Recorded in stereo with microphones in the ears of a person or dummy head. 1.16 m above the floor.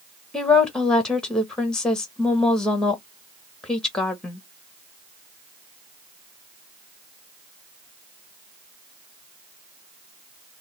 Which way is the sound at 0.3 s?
5° left (ahead or behind).